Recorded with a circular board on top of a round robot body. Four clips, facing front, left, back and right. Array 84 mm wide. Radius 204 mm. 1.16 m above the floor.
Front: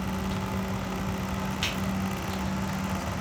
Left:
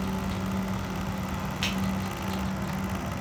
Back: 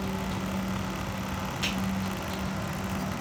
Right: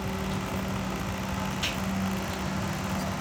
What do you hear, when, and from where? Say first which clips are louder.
1.6 s a finger snap: left 2 dB, even; 55° left, 0.9 m